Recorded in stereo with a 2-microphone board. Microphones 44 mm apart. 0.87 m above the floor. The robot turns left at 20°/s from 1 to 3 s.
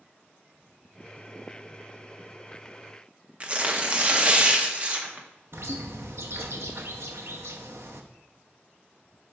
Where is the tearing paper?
30° right (ahead or behind), 0.7 m.